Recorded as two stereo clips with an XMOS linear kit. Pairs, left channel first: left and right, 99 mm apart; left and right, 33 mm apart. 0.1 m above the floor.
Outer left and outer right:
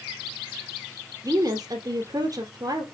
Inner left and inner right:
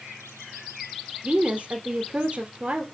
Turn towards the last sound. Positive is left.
turn(degrees=-40)  # may be behind; listen again after turning